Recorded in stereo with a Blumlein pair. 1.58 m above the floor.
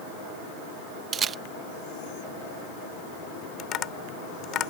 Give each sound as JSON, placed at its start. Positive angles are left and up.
{"t": 1.1, "sound": "a camera shutter", "azimuth_deg": -25}
{"t": 3.6, "sound": "tapping", "azimuth_deg": 30}